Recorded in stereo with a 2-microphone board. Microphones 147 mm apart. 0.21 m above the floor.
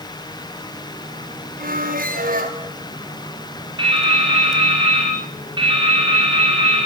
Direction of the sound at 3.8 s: 35° right (ahead or behind).